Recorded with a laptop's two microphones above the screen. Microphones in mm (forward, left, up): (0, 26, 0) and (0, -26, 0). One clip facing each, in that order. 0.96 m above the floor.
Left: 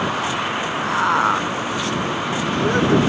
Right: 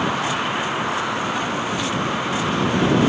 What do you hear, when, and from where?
0.8 s a man speaking: 55° left (ahead or behind); by 3.0 s 60° left (ahead or behind)